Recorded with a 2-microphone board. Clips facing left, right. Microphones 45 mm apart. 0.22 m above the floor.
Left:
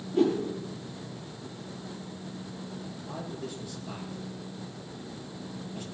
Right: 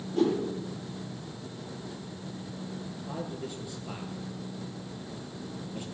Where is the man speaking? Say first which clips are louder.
Right 1 dB; 15° right (ahead or behind), 5 m.